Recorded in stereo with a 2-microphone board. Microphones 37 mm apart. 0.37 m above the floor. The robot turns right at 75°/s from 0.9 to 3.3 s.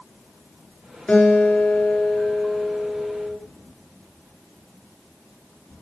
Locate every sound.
1.1 s a guitar: 30° left, 5 m; by 3.4 s 165° right, 5 m